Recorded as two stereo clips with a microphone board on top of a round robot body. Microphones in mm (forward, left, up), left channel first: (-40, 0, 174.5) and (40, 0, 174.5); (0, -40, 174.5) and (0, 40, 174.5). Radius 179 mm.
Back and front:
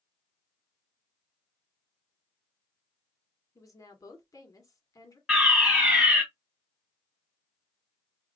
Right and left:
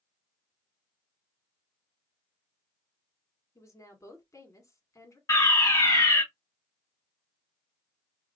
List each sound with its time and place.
3.5 s a woman speaking: 140° right, 1.9 m
5.3 s a fire alarm: 80° right, 2.5 m